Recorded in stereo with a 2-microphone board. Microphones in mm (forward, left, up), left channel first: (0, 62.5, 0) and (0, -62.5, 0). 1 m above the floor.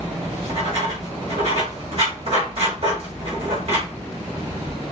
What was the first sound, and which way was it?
Writing, 55° right (ahead or behind).